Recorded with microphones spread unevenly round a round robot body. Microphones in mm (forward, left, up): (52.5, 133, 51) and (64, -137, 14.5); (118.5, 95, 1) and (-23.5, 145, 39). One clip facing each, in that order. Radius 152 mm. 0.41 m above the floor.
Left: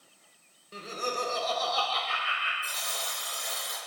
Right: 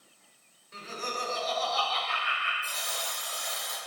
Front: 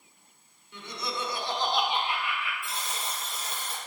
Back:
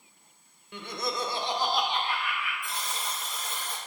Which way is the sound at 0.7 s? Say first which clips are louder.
Left 4 dB, back 3 dB; 145° left.